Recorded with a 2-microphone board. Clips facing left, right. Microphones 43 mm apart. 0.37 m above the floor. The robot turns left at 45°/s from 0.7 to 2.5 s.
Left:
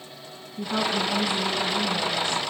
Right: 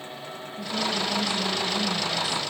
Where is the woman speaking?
50° left, 4.5 m; by 2.4 s 25° right, 4.5 m.